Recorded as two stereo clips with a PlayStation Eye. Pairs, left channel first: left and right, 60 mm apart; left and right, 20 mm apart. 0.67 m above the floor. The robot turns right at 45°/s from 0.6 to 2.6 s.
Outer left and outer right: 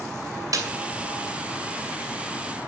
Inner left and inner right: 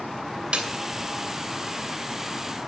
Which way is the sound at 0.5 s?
70° right (ahead or behind).